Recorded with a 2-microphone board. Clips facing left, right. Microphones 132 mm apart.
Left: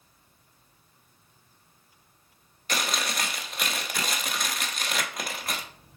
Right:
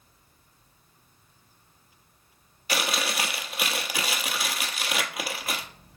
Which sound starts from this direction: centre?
Chewing, at 2.7 s.